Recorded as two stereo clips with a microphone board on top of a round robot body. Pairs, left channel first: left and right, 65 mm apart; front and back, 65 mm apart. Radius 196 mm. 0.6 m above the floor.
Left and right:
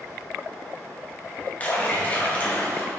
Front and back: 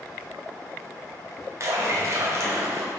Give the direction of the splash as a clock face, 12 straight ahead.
7 o'clock.